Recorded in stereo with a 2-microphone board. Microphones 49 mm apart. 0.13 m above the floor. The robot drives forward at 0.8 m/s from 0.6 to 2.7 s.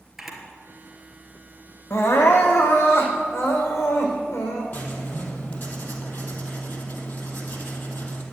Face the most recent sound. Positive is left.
turn(degrees=45)  # may be behind; listen again after turning